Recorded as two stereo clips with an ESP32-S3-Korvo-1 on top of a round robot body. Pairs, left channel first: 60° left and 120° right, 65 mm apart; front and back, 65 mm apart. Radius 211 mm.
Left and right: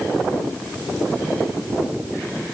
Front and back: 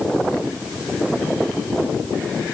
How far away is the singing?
No singing in this recording.